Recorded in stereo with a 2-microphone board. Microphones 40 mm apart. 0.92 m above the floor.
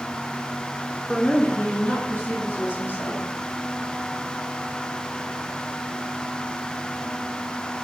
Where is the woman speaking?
10° left (ahead or behind), 0.9 m; by 3.3 s 75° left (ahead or behind), 3.5 m.